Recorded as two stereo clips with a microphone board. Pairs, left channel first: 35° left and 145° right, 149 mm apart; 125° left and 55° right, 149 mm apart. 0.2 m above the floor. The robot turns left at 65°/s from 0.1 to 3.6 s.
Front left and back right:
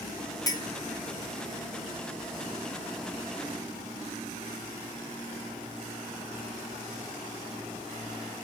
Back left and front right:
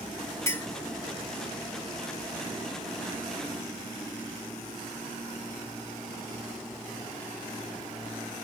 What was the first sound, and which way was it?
A clink, 70° left.